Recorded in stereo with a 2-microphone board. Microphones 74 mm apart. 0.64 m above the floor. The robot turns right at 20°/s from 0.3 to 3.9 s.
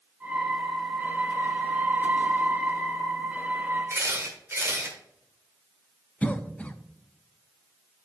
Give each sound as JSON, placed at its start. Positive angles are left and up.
{"t": 3.9, "sound": "a camera shutter", "side_deg": -35, "distance_m": 1.7}
{"t": 6.2, "sound": "a cough", "side_deg": 20, "distance_m": 0.5}